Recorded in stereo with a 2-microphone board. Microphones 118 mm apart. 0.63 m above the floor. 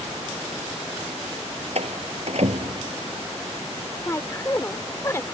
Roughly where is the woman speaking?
Left.